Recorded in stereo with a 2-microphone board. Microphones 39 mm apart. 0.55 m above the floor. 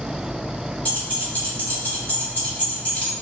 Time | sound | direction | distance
0.8 | keys jangling | 35° left (ahead or behind) | 1.3 m